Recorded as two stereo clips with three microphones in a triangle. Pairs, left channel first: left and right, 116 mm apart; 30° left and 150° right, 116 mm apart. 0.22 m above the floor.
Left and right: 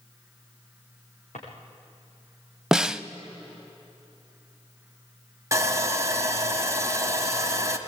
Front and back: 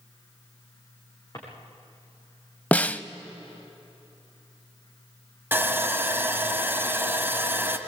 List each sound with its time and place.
1.3 s a drawer: 85° left, 7 m
2.7 s a snare drum: 20° right, 0.5 m
5.5 s sawing: 105° right, 1.5 m